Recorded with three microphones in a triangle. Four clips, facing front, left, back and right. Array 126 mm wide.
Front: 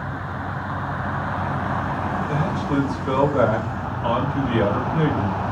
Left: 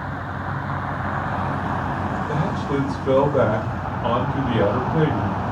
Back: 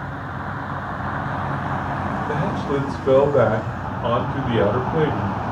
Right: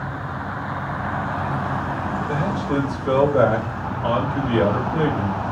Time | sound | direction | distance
2.3 | a man speaking | 175° left | 2.0 m